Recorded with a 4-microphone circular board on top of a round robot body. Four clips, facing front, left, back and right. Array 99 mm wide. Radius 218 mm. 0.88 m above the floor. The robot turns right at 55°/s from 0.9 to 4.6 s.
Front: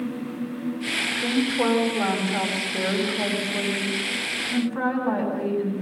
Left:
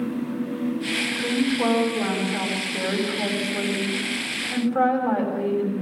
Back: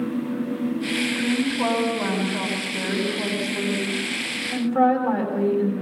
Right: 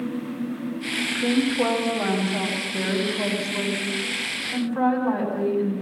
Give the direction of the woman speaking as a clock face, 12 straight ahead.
3 o'clock.